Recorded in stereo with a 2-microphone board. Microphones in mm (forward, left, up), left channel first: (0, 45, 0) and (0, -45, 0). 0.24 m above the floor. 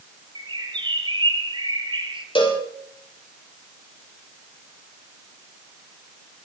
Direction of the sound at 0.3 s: 60° right (ahead or behind).